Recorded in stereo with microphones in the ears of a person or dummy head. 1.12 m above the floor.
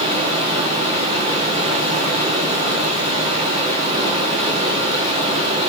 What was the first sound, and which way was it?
Running water, 30° right (ahead or behind).